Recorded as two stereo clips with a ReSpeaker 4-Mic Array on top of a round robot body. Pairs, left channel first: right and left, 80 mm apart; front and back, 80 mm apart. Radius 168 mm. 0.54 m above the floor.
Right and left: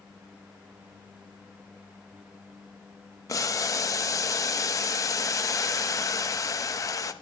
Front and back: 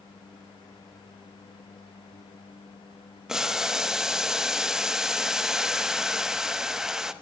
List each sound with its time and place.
3.3 s boiling: 100° right, 1.2 m